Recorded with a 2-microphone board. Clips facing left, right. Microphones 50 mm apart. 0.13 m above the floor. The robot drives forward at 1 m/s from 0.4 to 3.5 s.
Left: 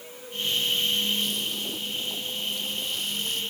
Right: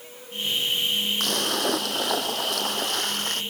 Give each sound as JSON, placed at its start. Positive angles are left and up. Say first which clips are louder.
{"t": 1.2, "sound": "a splash", "louder": "right 5 dB", "side_deg": -65}